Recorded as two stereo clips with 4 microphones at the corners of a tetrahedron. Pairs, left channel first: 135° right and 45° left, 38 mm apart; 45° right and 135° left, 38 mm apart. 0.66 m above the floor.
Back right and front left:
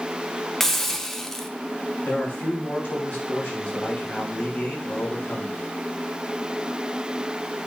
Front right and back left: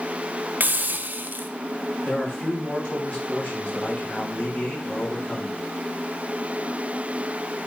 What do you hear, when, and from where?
0.6 s a hiss: 145° left, 0.7 m
2.0 s a man speaking: 90° right, 4.5 m